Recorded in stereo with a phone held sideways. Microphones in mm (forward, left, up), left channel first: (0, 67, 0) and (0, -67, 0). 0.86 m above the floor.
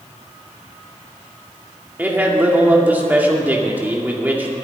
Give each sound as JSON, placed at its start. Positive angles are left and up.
{"t": 2.0, "sound": "a man speaking", "side_deg": -15, "distance_m": 2.5}